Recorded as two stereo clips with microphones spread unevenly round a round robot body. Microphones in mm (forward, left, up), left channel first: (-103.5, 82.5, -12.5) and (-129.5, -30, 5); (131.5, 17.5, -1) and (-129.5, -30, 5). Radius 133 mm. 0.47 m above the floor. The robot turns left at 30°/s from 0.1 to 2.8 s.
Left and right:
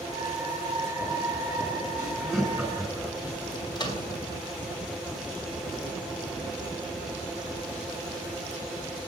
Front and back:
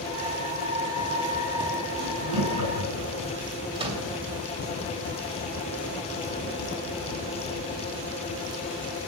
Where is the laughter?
Straight behind, 4.5 m; by 3.1 s 155° left, 4.5 m.